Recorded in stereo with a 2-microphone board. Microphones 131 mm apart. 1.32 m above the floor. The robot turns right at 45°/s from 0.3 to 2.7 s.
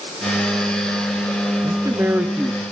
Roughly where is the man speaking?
Ahead right.